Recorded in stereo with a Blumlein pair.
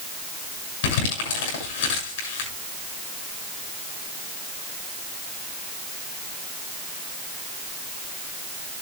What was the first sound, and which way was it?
Crumpling, 55° left.